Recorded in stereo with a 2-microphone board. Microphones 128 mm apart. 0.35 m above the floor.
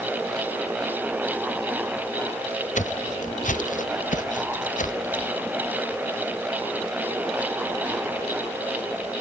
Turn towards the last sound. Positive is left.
turn(degrees=80)